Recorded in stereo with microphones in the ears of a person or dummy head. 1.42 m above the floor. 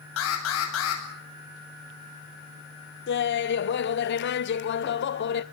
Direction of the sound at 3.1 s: 60° left (ahead or behind).